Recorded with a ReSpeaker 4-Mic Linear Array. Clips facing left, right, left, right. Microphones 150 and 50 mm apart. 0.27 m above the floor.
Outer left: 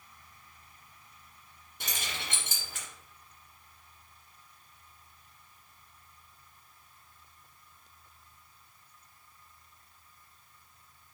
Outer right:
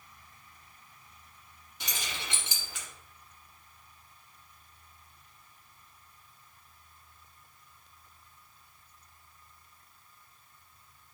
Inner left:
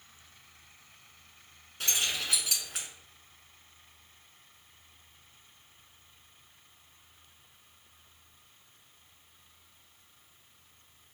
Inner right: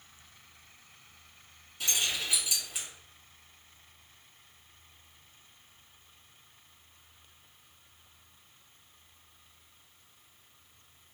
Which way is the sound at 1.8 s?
55° left (ahead or behind).